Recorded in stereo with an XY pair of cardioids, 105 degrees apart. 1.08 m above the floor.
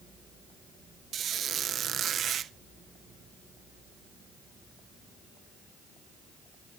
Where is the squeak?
60° right, 0.8 m.